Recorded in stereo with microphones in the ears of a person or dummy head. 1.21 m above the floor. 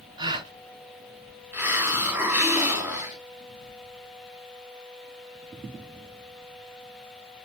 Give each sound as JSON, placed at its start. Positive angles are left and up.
{"t": 0.2, "sound": "a gasp", "side_deg": -25, "distance_m": 1.2}
{"t": 1.5, "sound": "a hiss", "side_deg": -15, "distance_m": 1.5}